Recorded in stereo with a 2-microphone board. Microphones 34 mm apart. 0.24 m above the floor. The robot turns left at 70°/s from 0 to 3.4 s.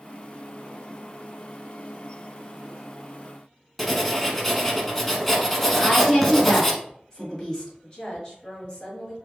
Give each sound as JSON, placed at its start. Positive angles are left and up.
{"t": 3.8, "sound": "writing", "side_deg": 10, "distance_m": 0.7}
{"t": 5.7, "sound": "a woman speaking", "side_deg": 10, "distance_m": 1.6}
{"t": 7.8, "sound": "a woman speaking", "side_deg": 30, "distance_m": 1.5}